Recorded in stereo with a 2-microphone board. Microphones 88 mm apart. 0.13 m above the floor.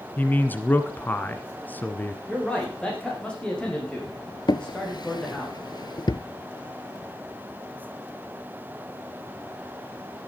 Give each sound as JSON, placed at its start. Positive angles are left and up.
{"t": 0.2, "sound": "a man speaking", "side_deg": 25, "distance_m": 1.2}
{"t": 2.3, "sound": "a man speaking", "side_deg": 10, "distance_m": 7.0}
{"t": 4.5, "sound": "a drawer", "side_deg": 60, "distance_m": 0.6}